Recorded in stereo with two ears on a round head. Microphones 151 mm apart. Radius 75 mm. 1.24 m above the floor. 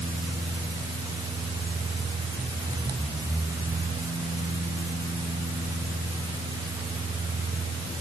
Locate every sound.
Only background noise.